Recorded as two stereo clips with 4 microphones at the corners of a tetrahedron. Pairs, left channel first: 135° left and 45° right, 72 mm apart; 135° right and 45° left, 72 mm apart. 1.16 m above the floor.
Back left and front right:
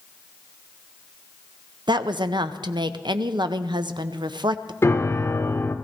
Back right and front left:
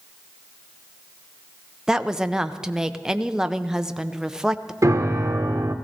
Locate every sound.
1.9 s a woman speaking: 40° right, 0.6 m
4.8 s a piano: 85° left, 0.9 m